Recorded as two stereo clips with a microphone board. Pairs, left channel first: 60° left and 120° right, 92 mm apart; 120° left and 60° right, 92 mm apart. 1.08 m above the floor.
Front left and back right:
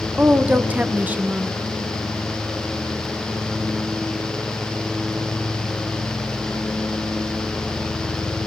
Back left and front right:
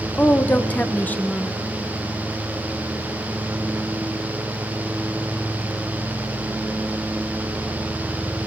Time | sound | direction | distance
0.2 | a woman speaking | straight behind | 0.8 m